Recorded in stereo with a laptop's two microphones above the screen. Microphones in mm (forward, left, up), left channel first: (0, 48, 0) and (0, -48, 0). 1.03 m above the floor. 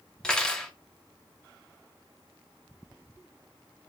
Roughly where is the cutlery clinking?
Centre.